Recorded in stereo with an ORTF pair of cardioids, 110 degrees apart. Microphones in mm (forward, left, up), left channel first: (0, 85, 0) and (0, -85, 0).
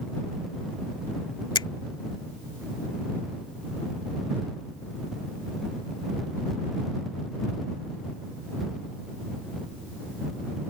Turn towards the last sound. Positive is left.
turn(degrees=25)